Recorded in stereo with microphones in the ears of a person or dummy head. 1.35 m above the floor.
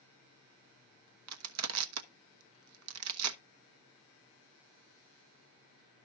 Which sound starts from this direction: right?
Crushing, at 1.3 s.